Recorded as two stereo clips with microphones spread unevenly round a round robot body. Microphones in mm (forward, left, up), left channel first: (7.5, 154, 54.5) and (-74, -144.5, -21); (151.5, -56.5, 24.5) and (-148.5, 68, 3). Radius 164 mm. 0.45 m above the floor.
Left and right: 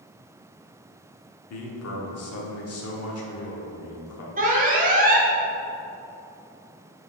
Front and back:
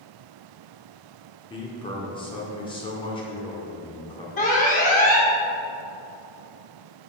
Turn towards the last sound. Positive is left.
turn(degrees=-80)